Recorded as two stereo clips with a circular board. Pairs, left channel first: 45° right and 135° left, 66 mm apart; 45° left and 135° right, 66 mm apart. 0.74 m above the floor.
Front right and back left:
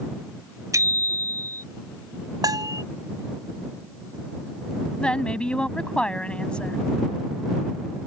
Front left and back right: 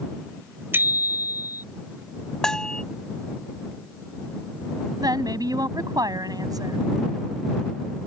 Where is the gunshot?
No gunshot in this recording.